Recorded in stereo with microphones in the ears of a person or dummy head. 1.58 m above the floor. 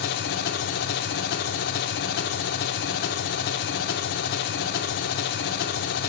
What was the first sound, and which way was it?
An engine running, 65° left (ahead or behind).